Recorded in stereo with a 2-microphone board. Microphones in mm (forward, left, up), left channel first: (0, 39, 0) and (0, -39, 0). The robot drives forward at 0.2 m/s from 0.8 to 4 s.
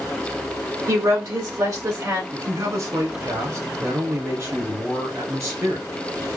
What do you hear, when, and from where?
0.9 s a woman speaking: 45° right (ahead or behind), 1.9 m; by 2.2 s 50° right (ahead or behind), 1.7 m
2.3 s a man speaking: 45° right (ahead or behind), 2 m